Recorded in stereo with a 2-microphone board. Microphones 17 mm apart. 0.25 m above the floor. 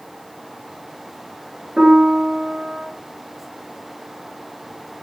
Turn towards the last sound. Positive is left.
turn(degrees=-45)  # may be behind; listen again after turning